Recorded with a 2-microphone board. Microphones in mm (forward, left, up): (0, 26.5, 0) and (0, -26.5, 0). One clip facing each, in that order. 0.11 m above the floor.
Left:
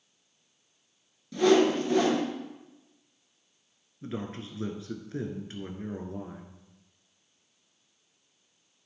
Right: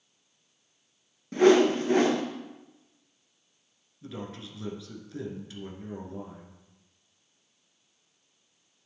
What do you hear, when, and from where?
1.3 s a whoosh: 40° right (ahead or behind), 1.6 m
4.0 s a man speaking: 35° left (ahead or behind), 1.3 m